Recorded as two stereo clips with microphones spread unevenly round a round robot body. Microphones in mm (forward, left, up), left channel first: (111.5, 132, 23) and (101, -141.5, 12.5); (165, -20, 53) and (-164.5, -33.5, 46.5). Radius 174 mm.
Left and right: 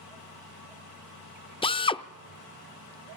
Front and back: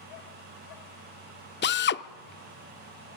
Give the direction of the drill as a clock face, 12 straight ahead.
11 o'clock.